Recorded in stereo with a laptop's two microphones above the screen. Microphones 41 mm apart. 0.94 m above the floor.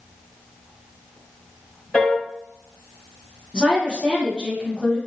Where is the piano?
35° left (ahead or behind), 1.4 m.